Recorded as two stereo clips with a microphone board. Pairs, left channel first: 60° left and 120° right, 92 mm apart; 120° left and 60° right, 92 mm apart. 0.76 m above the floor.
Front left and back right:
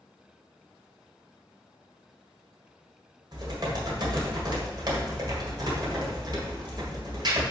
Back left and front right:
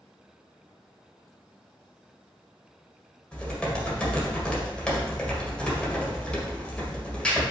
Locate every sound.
3.3 s typing on a keyboard: 160° right, 1.7 m